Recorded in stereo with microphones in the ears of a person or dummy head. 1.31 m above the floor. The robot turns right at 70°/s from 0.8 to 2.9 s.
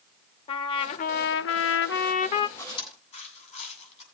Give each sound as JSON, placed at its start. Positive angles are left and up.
{"t": 0.5, "sound": "a trumpet", "azimuth_deg": 35, "distance_m": 0.8}
{"t": 2.6, "sound": "chewing", "side_deg": 15, "distance_m": 7.5}